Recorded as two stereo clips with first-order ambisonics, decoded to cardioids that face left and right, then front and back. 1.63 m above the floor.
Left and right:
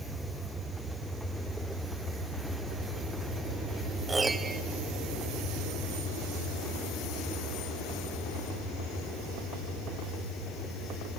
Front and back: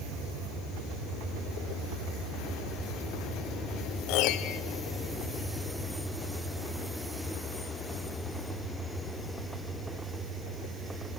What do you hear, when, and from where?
4.1 s a piano: 15° right, 0.6 m